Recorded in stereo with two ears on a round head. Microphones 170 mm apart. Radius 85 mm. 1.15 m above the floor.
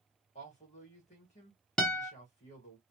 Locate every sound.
0.3 s a man speaking: 40° left (ahead or behind), 1.5 m
1.8 s a guitar: 5° left (ahead or behind), 0.6 m